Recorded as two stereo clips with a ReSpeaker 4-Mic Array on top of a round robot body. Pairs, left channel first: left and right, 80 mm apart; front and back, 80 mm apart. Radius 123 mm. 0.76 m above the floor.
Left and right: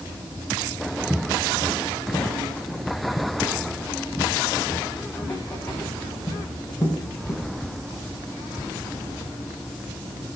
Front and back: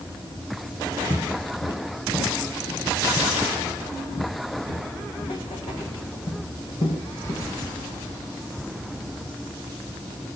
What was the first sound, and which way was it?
Footsteps, 15° right.